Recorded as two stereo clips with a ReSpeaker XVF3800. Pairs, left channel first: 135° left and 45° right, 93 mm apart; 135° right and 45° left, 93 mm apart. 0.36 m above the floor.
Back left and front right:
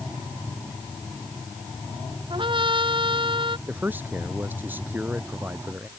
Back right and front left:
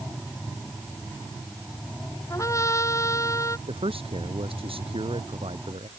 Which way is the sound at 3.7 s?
25° left.